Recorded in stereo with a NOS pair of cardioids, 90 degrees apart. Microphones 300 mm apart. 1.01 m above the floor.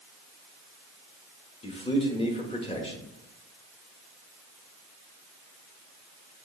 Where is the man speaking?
20° left, 1.2 m.